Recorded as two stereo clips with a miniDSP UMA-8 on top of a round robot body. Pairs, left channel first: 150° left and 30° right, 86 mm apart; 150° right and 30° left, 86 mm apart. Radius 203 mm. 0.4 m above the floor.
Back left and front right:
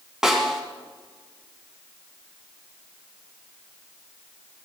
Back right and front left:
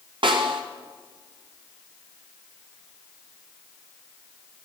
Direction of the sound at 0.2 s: 55° left.